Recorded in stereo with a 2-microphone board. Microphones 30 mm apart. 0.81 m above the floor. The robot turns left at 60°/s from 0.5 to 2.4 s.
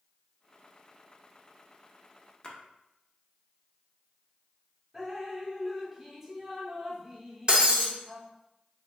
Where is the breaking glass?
35° right (ahead or behind), 0.7 m.